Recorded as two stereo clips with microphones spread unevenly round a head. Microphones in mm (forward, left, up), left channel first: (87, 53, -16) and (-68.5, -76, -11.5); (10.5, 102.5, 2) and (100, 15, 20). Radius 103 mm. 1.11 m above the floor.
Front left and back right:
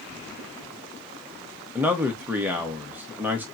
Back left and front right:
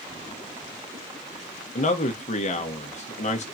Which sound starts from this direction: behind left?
A man speaking, at 1.8 s.